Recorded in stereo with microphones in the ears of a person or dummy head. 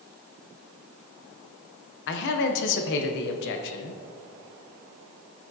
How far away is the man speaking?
About 0.8 m.